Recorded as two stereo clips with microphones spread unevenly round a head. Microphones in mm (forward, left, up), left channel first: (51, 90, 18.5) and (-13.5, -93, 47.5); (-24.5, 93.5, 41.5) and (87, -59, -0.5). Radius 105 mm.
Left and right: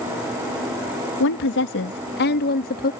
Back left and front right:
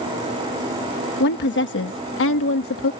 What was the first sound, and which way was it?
A woman speaking, 90° left.